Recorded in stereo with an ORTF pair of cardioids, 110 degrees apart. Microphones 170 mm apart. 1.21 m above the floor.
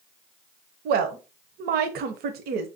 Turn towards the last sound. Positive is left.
turn(degrees=-65)